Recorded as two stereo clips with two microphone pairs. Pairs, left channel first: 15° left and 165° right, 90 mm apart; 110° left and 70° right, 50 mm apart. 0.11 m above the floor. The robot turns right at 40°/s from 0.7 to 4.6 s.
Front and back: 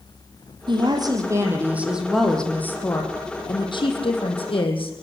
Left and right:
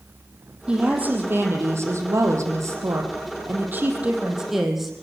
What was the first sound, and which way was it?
A woman speaking, 135° right.